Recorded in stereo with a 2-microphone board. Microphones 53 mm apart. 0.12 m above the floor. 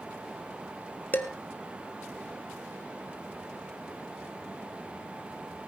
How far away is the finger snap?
I don't hear a finger snap.